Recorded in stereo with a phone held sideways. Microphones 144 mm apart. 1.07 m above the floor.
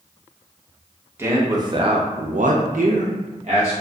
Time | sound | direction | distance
1.2 | a man speaking | 15° right (ahead or behind) | 0.9 m